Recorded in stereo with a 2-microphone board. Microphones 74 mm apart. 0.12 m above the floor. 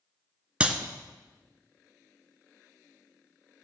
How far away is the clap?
About 1.1 m.